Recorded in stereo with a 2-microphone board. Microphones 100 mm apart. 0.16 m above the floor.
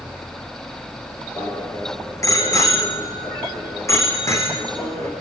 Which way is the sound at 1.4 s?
35° left (ahead or behind).